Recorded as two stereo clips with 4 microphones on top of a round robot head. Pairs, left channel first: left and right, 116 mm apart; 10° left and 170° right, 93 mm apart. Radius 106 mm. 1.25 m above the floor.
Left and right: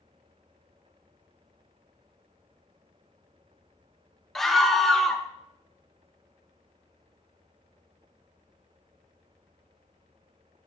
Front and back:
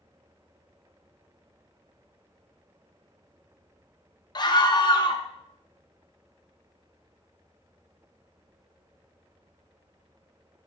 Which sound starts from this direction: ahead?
A scream, at 4.3 s.